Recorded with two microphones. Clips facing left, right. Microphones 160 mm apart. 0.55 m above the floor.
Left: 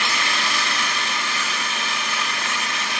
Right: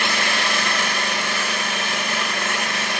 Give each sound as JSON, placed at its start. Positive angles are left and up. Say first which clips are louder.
{"t": 0.0, "sound": "an engine running", "louder": "right 3 dB", "side_deg": -55, "distance_m": 1.0}